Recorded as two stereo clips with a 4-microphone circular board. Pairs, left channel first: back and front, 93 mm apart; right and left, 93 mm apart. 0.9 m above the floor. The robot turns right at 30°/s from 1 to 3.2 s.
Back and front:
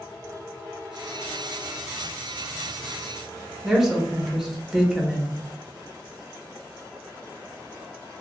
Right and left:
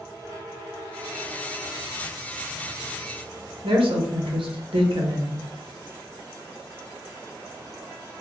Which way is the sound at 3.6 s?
85° left.